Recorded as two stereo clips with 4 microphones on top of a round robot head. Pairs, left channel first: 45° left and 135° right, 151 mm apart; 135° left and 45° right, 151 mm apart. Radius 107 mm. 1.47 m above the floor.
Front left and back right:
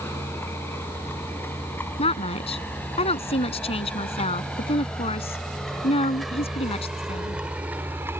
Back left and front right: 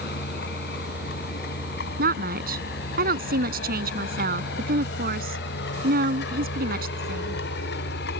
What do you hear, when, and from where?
0.0 s a vehicle: 120° left; by 8.2 s 145° left
2.0 s a woman speaking: 15° right